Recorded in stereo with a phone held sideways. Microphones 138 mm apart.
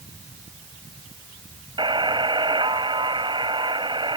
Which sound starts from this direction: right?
A buzzer, at 1.8 s.